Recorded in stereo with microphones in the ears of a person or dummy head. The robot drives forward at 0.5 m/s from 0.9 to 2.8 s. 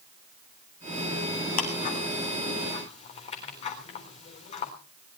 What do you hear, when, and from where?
1.6 s ticking: 45° left (ahead or behind), 3 m; by 4.7 s 40° left (ahead or behind), 3.5 m